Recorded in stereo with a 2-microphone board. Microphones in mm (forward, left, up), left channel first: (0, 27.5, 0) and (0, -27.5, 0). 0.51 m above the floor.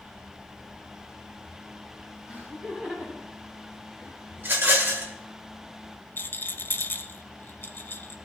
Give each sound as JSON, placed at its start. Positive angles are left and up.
{"t": 2.3, "sound": "laughter", "side_deg": -30, "distance_m": 3.0}
{"t": 4.4, "sound": "a rattle", "side_deg": -40, "distance_m": 2.0}
{"t": 6.2, "sound": "a rattle", "side_deg": 40, "distance_m": 0.7}